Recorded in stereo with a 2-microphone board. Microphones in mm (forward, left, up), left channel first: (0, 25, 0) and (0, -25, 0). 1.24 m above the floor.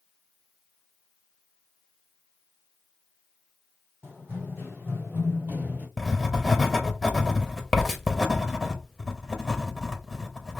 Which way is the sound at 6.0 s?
5° left (ahead or behind).